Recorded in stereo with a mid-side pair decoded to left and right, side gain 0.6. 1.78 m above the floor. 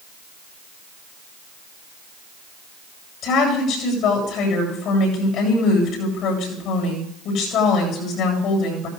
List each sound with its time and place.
3.2 s a woman speaking: 65° left, 8 m